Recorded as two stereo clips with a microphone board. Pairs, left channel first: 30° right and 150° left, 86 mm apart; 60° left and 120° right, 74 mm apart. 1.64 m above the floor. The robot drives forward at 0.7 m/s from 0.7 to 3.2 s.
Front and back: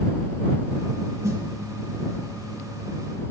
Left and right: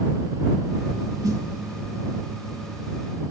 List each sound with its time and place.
1.2 s a snare drum: 160° right, 2.5 m